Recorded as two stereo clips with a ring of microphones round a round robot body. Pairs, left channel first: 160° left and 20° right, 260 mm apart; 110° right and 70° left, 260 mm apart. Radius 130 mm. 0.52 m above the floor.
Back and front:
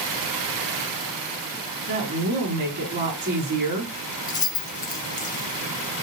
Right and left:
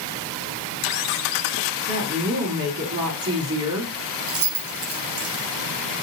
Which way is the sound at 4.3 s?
85° left.